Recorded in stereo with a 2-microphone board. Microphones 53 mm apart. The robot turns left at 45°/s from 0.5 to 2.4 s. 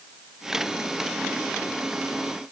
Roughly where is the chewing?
I don't hear chewing.